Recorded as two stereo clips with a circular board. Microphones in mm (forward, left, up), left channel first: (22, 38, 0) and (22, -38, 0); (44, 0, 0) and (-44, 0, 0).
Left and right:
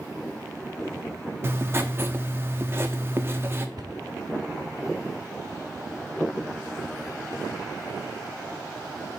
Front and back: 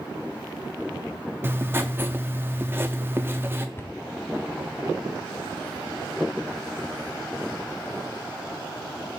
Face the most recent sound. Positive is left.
turn(degrees=-60)